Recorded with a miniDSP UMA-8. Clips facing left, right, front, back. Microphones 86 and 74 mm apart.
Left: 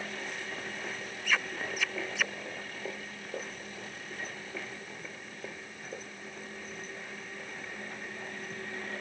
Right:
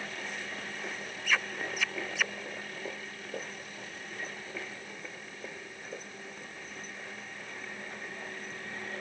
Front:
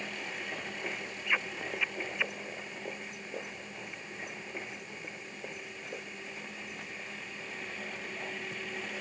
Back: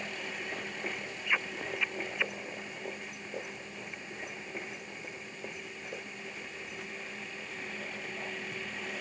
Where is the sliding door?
I don't hear a sliding door.